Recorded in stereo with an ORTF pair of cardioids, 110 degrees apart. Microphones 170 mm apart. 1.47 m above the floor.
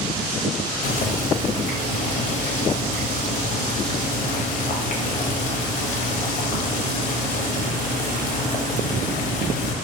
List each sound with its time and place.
0.8 s boiling: 50° left, 0.9 m